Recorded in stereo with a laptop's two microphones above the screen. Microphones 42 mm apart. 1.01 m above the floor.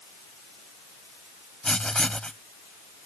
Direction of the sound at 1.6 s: 20° left (ahead or behind).